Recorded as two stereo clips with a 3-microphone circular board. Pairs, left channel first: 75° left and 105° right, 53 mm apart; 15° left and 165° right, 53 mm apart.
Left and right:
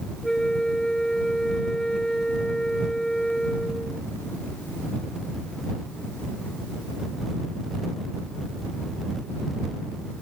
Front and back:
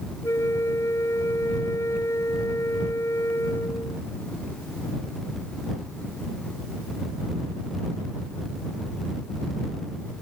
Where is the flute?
5° right.